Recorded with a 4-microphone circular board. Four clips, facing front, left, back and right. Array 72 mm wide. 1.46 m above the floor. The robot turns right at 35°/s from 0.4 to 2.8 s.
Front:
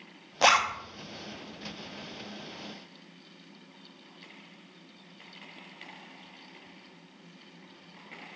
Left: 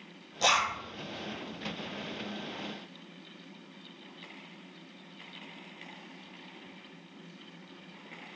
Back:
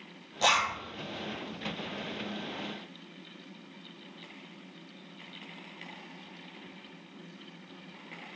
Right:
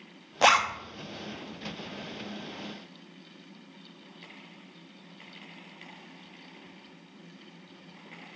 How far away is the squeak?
No squeak in this recording.